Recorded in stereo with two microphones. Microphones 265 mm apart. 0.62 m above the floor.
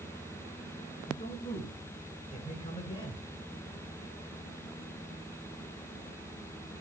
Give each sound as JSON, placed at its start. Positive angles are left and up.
{"t": 1.1, "sound": "a man speaking", "side_deg": 30, "distance_m": 9.5}